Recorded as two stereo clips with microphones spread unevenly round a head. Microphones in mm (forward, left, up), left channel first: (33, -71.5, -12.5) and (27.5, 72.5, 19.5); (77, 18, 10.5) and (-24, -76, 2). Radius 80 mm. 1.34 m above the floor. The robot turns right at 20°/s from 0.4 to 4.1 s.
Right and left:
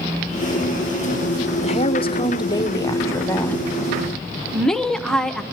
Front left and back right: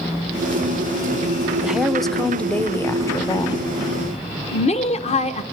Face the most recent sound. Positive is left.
turn(degrees=0)